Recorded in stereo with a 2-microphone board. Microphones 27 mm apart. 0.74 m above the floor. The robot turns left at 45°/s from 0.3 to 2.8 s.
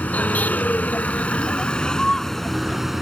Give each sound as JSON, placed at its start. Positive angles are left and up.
{"t": 0.0, "sound": "a vehicle", "azimuth_deg": 100}